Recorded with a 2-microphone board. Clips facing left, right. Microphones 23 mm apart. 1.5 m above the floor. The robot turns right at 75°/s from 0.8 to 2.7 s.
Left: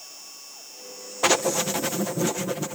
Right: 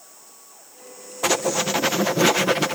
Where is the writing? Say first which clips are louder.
Even; 170° left; by 2.8 s 80° right.